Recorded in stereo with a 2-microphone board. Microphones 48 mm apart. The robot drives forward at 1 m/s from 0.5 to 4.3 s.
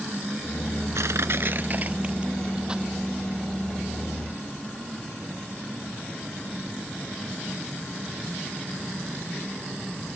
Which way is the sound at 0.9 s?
80° right.